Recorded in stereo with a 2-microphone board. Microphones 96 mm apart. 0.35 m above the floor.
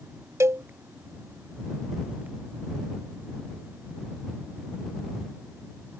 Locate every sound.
0.4 s a cowbell: 30° right (ahead or behind)